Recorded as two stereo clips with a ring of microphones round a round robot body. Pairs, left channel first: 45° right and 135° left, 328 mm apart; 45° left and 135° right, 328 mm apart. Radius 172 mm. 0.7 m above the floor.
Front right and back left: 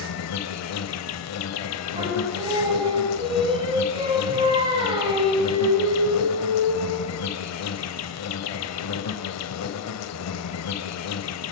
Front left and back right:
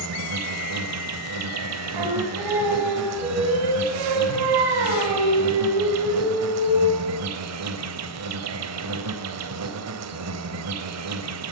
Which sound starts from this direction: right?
An insect, at 0.0 s.